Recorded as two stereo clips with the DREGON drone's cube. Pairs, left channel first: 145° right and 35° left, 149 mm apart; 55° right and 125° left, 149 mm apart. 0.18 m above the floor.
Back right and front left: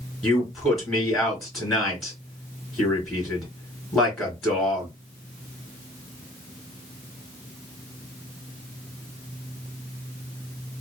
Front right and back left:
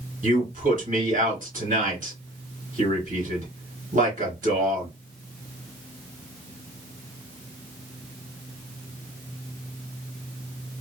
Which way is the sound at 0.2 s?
125° left.